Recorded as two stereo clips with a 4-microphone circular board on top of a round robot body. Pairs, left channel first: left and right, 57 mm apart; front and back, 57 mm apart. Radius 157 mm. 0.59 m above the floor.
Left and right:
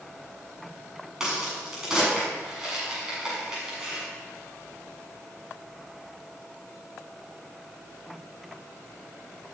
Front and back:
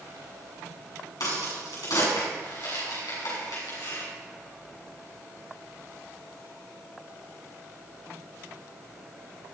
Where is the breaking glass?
I don't hear breaking glass.